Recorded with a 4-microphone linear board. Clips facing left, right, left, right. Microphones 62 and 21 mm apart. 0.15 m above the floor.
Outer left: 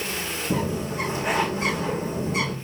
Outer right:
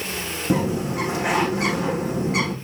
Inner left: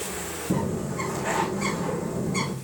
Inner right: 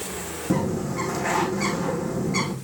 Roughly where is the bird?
Right.